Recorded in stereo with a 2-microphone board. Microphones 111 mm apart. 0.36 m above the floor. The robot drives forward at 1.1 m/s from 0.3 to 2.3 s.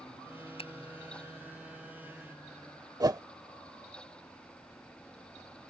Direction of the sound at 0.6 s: 60° left (ahead or behind).